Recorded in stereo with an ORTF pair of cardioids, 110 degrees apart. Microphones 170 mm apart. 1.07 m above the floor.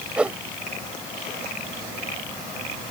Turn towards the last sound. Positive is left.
turn(degrees=-5)